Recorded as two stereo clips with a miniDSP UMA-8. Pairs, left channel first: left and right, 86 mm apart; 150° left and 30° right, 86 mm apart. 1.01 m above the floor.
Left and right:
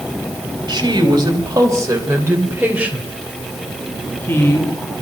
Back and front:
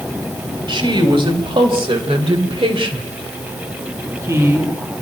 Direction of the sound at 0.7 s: 50° right.